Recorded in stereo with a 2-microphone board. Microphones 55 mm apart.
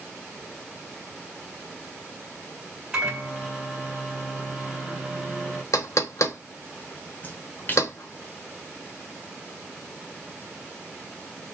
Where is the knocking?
75° left (ahead or behind), 0.8 m.